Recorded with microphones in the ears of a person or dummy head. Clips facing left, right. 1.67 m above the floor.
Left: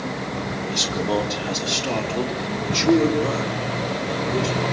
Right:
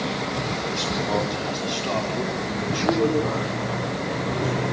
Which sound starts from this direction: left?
A man speaking, at 0.6 s.